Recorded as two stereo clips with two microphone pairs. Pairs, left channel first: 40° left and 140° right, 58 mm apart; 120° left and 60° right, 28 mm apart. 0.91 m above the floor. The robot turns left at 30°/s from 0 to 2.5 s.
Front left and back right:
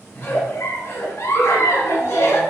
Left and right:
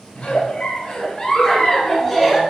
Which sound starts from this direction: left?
A giggle, at 0.1 s.